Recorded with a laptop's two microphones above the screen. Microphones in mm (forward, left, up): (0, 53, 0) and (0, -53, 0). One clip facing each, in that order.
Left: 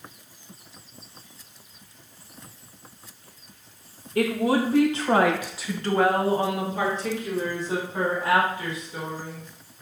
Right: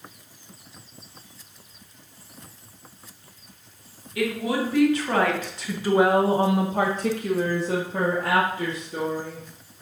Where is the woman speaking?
45° left (ahead or behind), 1.6 m; by 9.5 s 75° right (ahead or behind), 3 m.